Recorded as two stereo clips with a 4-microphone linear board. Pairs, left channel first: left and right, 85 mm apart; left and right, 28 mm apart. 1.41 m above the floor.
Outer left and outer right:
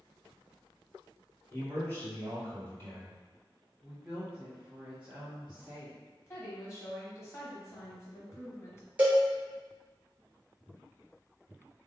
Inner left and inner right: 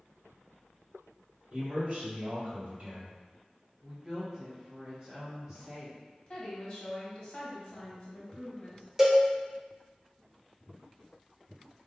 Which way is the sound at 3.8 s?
5° left (ahead or behind).